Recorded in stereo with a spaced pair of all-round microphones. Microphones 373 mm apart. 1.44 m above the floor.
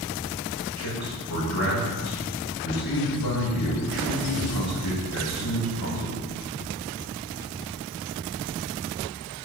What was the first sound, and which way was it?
A man speaking, 80° left.